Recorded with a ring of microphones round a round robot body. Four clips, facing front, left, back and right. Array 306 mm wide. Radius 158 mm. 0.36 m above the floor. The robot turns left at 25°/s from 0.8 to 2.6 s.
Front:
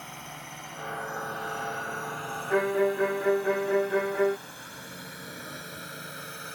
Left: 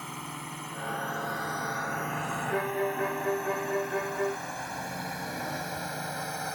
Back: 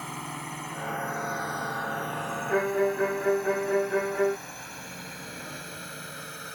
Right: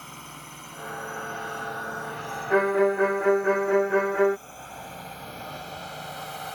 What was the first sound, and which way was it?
A drone, 155° left.